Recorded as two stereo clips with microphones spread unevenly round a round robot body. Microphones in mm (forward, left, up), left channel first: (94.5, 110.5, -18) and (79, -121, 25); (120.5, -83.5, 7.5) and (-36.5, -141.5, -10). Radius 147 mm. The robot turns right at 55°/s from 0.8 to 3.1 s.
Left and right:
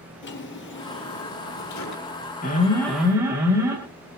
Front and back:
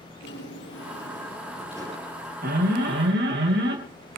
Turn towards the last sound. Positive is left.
turn(degrees=180)